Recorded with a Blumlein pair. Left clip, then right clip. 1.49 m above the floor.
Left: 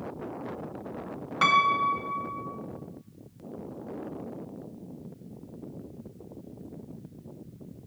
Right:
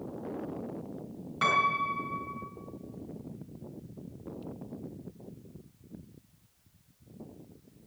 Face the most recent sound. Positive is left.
turn(degrees=20)